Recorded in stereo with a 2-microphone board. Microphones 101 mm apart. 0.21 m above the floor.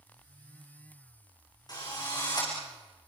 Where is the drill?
40° left (ahead or behind), 8.5 m.